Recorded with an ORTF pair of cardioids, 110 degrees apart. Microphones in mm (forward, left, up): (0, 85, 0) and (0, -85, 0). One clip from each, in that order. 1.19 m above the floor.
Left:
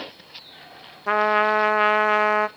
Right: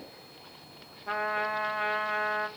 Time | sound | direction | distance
1.1 | a trumpet | 60° left | 0.6 m